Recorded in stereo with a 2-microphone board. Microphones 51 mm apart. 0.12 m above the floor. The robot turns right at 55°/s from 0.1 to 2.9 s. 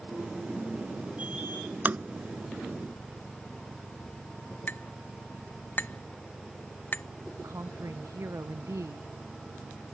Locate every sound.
1.9 s tapping: 35° right (ahead or behind)
4.7 s a clink: 40° left (ahead or behind)
7.4 s a woman speaking: 75° right (ahead or behind)